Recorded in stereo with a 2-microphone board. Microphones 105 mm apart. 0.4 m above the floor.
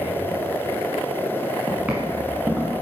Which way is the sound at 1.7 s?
15° right (ahead or behind).